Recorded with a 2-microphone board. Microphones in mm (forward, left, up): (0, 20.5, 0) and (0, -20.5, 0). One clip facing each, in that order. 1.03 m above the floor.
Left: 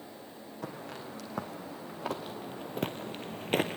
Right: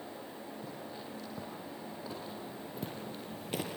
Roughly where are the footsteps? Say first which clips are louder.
Left 3 dB; left.